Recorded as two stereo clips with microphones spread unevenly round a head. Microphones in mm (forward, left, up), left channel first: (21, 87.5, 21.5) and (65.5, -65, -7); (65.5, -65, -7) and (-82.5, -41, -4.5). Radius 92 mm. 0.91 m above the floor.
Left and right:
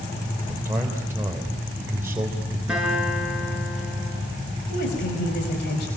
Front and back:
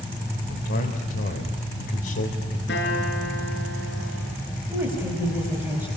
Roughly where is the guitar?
Ahead.